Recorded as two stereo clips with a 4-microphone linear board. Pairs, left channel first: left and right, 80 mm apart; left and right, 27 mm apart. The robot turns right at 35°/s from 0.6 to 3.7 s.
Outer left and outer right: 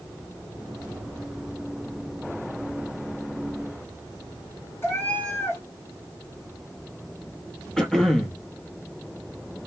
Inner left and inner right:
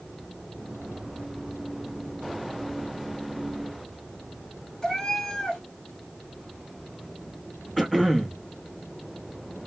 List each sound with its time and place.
4.8 s a cat meowing: 25° left (ahead or behind), 1.2 m
7.8 s throat clearing: 5° left (ahead or behind), 0.8 m